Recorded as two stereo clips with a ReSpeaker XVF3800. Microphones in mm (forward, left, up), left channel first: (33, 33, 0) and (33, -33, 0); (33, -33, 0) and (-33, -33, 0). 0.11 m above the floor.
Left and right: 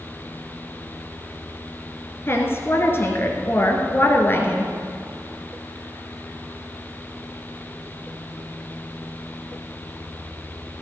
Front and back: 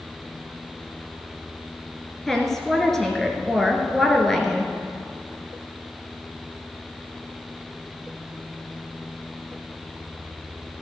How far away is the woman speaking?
About 1.6 m.